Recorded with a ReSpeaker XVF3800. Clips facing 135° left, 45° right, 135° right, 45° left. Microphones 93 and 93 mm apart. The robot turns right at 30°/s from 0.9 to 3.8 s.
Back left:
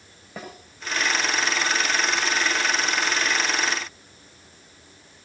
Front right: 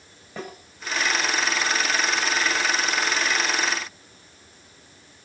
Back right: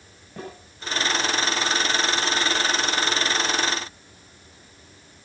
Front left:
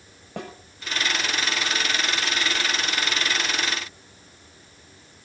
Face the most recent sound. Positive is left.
turn(degrees=135)